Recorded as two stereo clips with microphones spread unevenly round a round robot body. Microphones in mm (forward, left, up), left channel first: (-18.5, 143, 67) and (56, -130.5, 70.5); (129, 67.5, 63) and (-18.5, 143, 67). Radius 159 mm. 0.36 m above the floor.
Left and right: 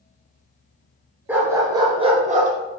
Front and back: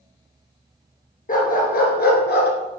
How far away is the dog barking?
About 2 m.